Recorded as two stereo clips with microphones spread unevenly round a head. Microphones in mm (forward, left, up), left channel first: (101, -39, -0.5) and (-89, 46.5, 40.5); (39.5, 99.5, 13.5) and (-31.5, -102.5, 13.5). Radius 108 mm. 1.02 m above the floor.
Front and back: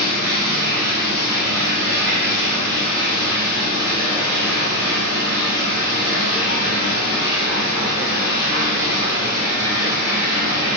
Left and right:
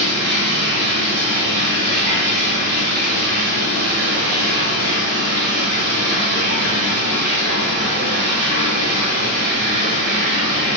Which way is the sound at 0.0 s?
145° right.